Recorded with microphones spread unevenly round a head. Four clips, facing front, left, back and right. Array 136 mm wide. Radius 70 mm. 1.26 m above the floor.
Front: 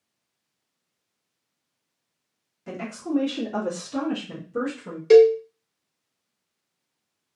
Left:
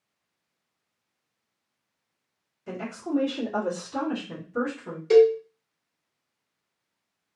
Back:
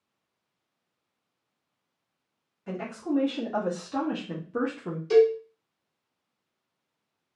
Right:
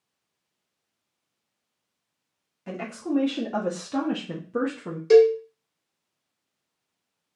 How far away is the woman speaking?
About 1.5 m.